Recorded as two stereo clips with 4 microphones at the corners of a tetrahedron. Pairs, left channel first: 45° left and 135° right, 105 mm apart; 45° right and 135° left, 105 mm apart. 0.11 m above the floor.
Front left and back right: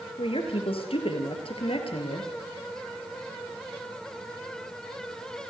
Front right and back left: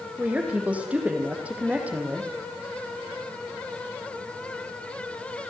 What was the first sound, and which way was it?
A woman speaking, 60° left.